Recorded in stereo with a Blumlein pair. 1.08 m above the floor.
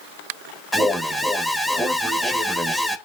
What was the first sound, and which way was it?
An alarm, straight ahead.